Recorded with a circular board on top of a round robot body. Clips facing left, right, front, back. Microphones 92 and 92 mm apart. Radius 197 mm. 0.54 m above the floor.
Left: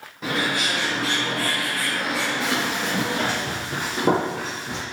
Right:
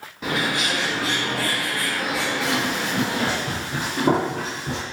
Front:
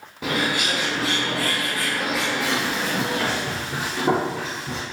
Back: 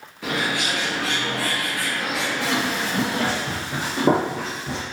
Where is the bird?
Straight ahead, 1.1 m.